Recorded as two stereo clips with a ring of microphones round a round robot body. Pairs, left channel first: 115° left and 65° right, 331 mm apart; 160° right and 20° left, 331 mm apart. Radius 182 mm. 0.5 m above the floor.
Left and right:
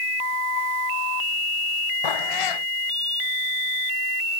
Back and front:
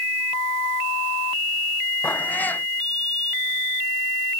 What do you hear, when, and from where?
2.0 s a cat meowing: 115° left